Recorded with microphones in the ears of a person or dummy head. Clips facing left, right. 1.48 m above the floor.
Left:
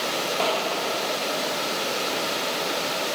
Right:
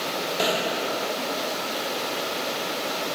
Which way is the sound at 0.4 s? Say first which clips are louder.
Right 1 dB; 20° right (ahead or behind).